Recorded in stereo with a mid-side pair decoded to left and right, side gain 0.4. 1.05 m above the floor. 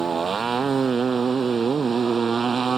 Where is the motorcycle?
45° right.